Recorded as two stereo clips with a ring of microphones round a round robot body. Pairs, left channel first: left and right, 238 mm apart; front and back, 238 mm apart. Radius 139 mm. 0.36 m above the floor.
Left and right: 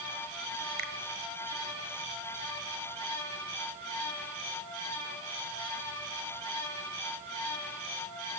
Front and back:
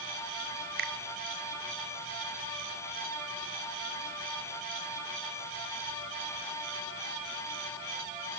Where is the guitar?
No guitar in this recording.